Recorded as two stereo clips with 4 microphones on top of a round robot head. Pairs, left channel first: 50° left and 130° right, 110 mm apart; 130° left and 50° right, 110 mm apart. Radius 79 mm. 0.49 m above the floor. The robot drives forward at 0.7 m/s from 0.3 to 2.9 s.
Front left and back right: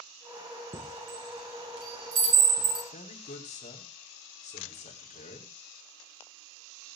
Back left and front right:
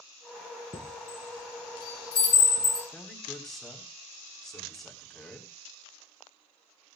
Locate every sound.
0.7 s a chime: straight behind, 2.5 m
2.9 s a man speaking: 45° left, 4.5 m